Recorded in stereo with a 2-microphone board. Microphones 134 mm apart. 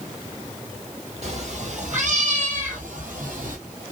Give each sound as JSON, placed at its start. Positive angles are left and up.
{"t": 1.2, "sound": "a cat meowing", "side_deg": -55, "distance_m": 1.8}